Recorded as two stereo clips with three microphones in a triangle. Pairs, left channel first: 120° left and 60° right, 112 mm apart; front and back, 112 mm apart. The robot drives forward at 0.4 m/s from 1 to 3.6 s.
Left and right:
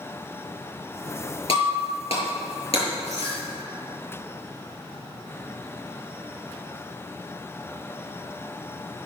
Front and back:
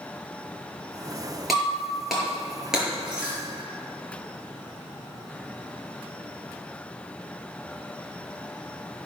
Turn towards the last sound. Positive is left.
turn(degrees=100)